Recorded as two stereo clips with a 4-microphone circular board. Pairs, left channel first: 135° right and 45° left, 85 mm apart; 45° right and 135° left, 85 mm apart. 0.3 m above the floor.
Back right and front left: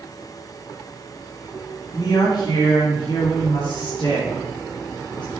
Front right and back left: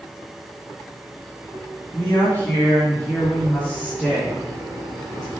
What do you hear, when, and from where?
1.9 s a woman speaking: 100° right, 2.0 m; by 5.3 s 125° right, 4.5 m